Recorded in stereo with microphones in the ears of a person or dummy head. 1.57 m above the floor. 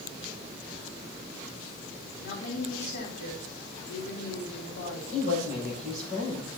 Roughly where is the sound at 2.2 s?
Left.